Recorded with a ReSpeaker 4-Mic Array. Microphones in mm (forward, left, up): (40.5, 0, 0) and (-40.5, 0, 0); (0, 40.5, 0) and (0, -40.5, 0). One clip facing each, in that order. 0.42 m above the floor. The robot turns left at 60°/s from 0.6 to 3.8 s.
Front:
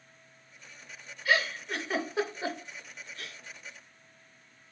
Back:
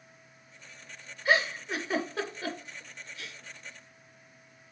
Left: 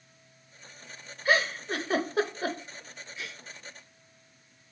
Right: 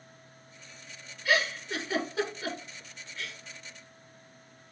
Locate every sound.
1.2 s a giggle: 130° left, 0.6 m; by 3.4 s straight ahead, 0.6 m